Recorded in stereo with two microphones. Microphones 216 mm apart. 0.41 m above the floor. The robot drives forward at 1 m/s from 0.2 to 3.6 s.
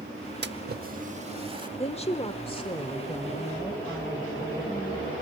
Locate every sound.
0.4 s a splash: 50° right (ahead or behind), 0.7 m; by 1.7 s 25° right (ahead or behind), 1.5 m
1.8 s a woman speaking: 30° left (ahead or behind), 1.0 m; by 5.1 s 15° left (ahead or behind), 1.9 m